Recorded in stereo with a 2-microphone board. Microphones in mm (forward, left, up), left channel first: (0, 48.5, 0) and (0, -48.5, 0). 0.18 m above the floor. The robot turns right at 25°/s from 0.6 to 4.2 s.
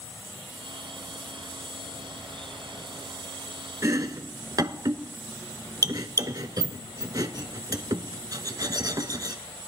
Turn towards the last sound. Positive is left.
turn(degrees=-40)  # may be behind; listen again after turning